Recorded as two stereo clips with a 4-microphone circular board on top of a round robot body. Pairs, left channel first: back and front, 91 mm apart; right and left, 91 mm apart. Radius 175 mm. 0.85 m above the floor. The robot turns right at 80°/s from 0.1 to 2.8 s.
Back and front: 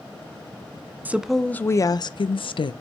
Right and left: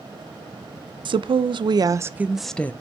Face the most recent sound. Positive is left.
turn(degrees=-150)